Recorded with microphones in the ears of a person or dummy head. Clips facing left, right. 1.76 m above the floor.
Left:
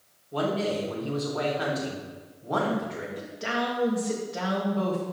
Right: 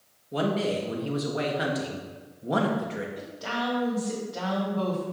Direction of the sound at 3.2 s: 30° left (ahead or behind).